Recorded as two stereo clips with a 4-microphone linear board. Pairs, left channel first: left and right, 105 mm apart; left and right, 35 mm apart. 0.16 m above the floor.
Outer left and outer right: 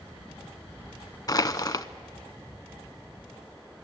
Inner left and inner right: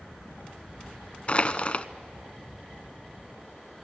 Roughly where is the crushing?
Left.